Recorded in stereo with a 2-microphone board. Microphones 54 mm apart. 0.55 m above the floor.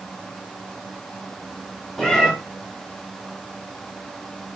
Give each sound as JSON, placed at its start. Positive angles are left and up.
{"t": 2.0, "sound": "a cat meowing", "side_deg": 10, "distance_m": 0.8}